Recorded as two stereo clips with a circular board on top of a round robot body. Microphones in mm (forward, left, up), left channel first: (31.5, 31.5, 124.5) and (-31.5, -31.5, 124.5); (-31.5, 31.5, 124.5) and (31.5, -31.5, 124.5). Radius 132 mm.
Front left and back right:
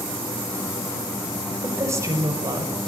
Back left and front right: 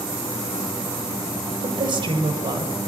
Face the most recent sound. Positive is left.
turn(degrees=-85)